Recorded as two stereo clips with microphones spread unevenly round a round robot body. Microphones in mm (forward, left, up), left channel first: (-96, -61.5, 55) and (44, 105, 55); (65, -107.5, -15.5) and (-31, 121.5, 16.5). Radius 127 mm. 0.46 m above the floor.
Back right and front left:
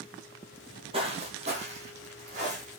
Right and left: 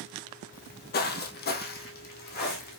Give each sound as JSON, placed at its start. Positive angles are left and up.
{"t": 0.5, "sound": "footsteps", "azimuth_deg": -20, "distance_m": 0.5}